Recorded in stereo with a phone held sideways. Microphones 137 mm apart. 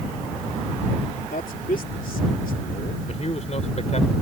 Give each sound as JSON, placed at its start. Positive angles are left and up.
{"t": 1.3, "sound": "a man speaking", "side_deg": 90}
{"t": 3.1, "sound": "a man speaking", "side_deg": 55}